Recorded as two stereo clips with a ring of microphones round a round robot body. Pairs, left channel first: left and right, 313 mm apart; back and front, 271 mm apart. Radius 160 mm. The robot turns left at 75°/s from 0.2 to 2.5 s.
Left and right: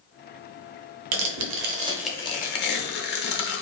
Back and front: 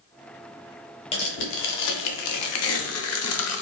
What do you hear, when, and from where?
1.1 s tearing paper: 105° right, 0.6 m; by 3.6 s 150° left, 0.6 m